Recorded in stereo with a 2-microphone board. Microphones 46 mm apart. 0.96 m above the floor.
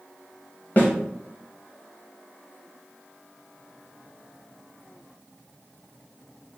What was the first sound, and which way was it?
A snare drum, 40° left (ahead or behind).